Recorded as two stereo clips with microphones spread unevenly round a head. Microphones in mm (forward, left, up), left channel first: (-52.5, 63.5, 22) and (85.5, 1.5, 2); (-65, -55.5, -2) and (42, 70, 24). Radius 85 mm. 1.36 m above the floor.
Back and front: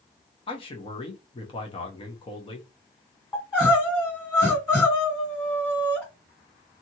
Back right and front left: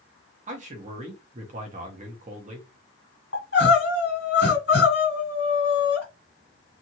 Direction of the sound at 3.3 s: 140° right.